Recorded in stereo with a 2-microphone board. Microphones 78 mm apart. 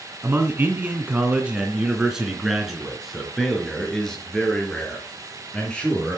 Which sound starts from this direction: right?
A man speaking, at 0.2 s.